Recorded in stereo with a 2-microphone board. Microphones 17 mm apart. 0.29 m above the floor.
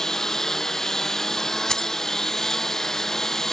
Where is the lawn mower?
30° left (ahead or behind).